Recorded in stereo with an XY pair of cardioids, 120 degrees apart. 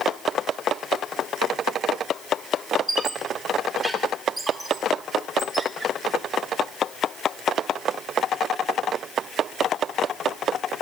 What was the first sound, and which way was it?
A squeak, 20° right.